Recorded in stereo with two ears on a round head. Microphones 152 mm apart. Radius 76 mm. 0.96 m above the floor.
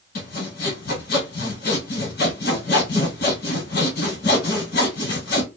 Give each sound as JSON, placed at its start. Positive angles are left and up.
{"t": 0.1, "sound": "sawing", "side_deg": 60, "distance_m": 1.6}